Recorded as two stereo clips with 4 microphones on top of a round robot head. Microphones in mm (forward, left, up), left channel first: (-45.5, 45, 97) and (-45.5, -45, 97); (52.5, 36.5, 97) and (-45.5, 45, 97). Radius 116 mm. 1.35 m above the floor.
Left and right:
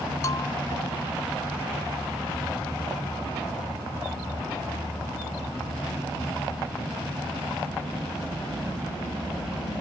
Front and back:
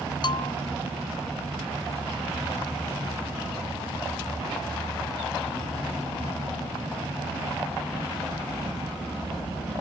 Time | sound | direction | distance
0.2 | a bell | 30° left | ?